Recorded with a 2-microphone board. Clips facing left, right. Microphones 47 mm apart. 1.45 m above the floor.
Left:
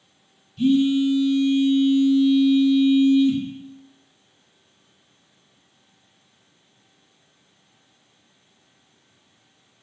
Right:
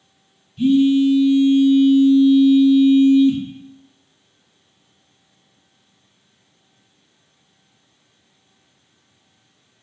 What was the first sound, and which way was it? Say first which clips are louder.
A phone buzzing: right 4 dB; 5° right (ahead or behind).